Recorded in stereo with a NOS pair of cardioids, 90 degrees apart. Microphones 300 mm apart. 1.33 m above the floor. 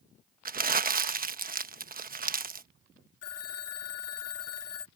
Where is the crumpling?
30° right.